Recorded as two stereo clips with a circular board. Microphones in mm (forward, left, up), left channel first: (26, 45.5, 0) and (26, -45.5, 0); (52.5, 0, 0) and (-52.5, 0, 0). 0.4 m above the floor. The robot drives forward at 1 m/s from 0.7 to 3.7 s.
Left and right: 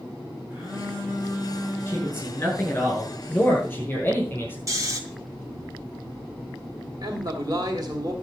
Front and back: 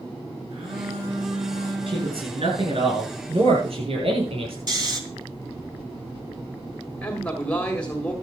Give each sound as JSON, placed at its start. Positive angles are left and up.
{"t": 0.5, "sound": "a phone buzzing", "azimuth_deg": -160, "distance_m": 8.0}
{"t": 1.9, "sound": "a man speaking", "azimuth_deg": 155, "distance_m": 6.5}
{"t": 4.7, "sound": "snoring", "azimuth_deg": -135, "distance_m": 1.9}
{"t": 7.0, "sound": "a man speaking", "azimuth_deg": -75, "distance_m": 2.0}